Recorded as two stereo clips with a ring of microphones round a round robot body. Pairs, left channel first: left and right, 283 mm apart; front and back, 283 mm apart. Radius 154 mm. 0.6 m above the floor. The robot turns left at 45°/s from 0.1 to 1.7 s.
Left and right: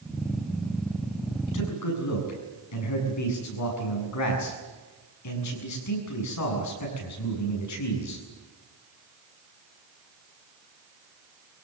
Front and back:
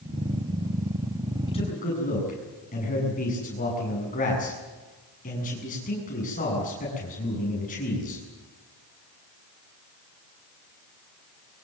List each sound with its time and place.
1.5 s a man speaking: 75° left, 7 m; by 8.2 s 65° left, 7 m